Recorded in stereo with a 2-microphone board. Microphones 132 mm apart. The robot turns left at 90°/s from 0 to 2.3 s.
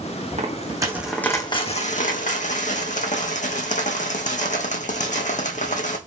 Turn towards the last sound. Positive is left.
turn(degrees=70)